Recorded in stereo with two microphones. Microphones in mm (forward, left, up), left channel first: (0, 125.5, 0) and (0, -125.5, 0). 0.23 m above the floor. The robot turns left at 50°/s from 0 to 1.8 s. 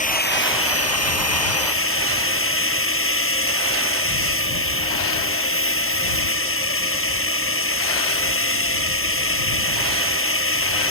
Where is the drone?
150° left; by 10.9 s 60° left.